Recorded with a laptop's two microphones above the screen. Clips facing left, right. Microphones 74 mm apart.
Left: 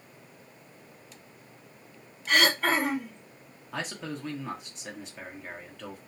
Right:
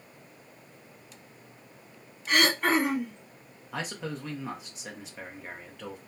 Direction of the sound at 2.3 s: 10° right (ahead or behind).